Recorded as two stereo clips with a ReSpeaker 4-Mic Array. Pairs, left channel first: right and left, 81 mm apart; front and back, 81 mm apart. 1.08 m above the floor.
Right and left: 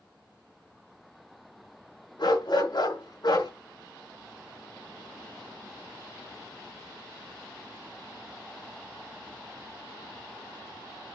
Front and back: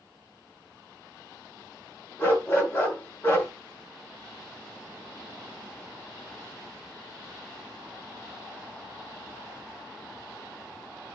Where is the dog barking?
60° right, 6 m.